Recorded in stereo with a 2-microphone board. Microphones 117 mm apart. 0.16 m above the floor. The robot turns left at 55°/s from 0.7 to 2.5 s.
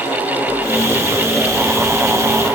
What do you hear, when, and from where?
Only background noise.